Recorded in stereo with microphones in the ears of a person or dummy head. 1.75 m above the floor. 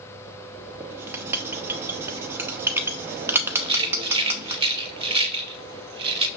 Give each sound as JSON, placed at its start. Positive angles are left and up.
{"t": 0.8, "sound": "writing", "side_deg": -15, "distance_m": 0.8}
{"t": 3.5, "sound": "a rattle", "side_deg": -25, "distance_m": 0.5}